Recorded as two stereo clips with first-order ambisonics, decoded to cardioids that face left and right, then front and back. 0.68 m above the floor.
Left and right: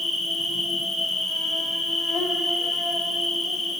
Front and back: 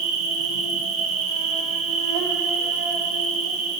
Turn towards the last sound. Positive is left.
turn(degrees=175)